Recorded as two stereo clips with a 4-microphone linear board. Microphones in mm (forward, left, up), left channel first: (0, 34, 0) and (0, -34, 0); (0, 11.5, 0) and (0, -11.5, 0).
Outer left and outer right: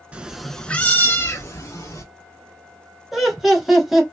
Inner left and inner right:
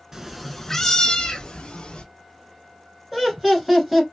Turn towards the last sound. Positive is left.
turn(degrees=0)  # may be behind; listen again after turning